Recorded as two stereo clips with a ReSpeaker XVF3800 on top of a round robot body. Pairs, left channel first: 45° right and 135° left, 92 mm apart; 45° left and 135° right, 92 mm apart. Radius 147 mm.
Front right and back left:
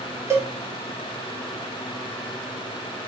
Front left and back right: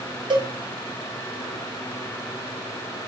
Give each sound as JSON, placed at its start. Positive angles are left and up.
{"t": 0.3, "sound": "a cowbell", "azimuth_deg": -165, "distance_m": 2.5}